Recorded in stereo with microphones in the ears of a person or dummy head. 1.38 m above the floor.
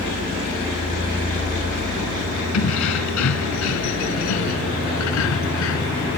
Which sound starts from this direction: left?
Keys jangling, at 2.5 s.